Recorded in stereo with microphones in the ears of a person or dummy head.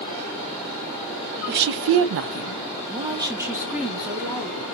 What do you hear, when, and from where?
1.5 s a woman speaking: 50° right (ahead or behind), 0.8 m; by 4.6 s centre (ahead or behind), 1.7 m